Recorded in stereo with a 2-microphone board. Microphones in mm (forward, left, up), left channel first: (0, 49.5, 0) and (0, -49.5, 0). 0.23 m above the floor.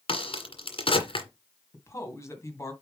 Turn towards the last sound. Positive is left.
turn(degrees=30)  # may be behind; listen again after turning